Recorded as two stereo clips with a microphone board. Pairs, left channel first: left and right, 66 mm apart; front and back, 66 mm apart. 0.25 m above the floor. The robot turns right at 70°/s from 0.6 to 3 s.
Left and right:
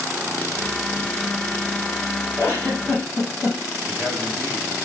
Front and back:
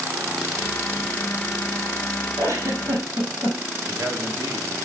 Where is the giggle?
150° left, 4.5 m; by 3.6 s 165° right, 4.5 m.